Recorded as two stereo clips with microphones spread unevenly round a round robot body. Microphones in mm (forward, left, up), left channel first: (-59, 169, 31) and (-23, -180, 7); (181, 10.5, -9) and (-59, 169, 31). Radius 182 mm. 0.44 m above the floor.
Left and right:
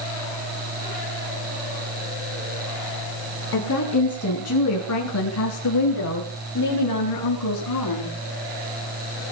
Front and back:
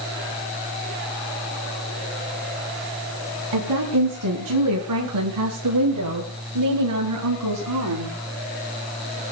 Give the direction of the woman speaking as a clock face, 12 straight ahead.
7 o'clock.